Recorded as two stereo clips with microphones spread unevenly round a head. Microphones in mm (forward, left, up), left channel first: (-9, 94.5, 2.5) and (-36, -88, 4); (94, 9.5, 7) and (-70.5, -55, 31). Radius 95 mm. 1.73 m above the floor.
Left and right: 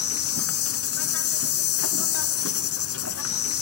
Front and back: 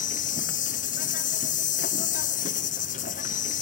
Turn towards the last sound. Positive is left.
turn(degrees=75)